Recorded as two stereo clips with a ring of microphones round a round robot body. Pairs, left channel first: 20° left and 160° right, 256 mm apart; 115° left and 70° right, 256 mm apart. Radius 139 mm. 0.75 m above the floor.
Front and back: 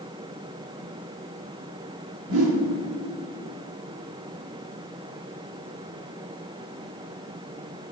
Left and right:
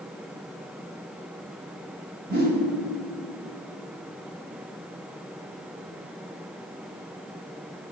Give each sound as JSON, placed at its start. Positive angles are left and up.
{"t": 2.3, "sound": "a whoosh", "azimuth_deg": -120, "distance_m": 1.0}